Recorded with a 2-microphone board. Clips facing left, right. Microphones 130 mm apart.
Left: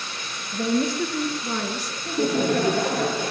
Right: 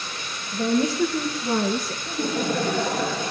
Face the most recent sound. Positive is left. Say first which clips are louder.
# left 5 dB
turn(degrees=60)  # may be behind; listen again after turning